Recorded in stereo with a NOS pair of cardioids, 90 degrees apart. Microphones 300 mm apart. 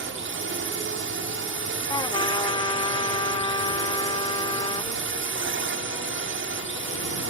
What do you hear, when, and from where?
0.0 s a drone: 45° right
1.9 s a trumpet: 15° left